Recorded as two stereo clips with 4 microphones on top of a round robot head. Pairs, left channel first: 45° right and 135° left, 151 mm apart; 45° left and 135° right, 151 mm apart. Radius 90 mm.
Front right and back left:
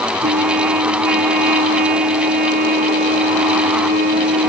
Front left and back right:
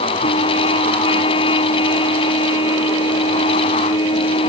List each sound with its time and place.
0.2 s a trumpet: 105° left